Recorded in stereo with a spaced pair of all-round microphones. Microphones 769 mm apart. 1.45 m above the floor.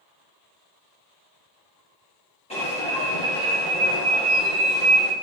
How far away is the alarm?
About 2 m.